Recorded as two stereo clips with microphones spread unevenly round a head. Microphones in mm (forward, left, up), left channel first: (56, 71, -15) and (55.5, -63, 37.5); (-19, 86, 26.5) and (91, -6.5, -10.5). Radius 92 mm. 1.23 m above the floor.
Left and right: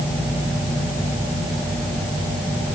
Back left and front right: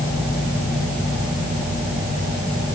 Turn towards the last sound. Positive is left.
No sound to turn to.